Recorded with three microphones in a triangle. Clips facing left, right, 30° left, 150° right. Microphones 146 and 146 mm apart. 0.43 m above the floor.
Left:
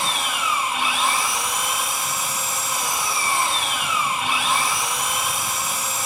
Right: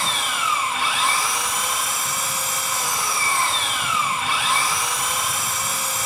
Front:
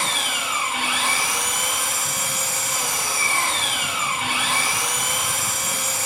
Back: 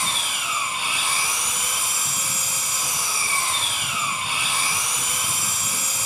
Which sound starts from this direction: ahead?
An engine running, at 0.0 s.